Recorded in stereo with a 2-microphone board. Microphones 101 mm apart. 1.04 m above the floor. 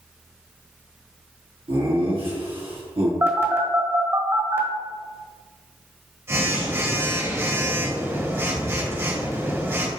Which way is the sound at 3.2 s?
25° right (ahead or behind).